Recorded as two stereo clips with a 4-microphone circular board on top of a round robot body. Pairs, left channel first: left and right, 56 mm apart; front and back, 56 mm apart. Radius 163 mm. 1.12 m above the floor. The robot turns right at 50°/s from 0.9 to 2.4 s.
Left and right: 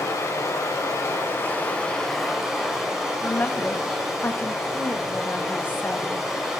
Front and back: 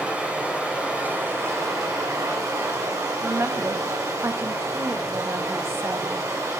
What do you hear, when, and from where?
0.0 s running water: 115° left, 3.5 m; by 6.6 s 170° right, 3.5 m
3.2 s a woman speaking: 145° left, 1.4 m